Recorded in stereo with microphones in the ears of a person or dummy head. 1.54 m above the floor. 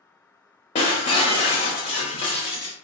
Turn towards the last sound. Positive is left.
turn(degrees=30)  # may be behind; listen again after turning